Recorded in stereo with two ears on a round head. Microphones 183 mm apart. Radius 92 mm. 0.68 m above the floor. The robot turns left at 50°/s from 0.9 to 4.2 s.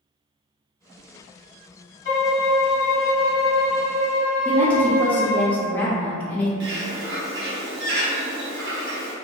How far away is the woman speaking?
About 0.6 m.